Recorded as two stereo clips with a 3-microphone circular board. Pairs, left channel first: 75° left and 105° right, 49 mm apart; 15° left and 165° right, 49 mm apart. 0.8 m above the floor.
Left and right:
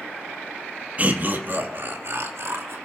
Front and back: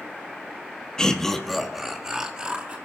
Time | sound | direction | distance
1.0 | laughter | 55° right | 1.4 m